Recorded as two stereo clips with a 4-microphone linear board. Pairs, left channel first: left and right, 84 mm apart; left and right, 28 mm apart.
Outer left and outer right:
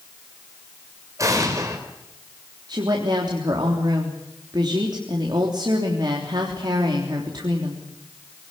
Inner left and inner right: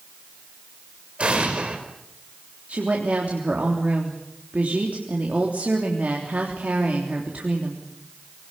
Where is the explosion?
40° right (ahead or behind), 4.5 m.